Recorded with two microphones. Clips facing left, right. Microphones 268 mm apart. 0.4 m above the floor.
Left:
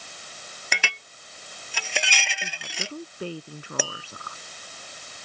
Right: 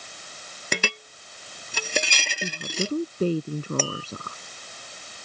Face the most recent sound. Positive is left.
turn(degrees=10)  # may be behind; listen again after turning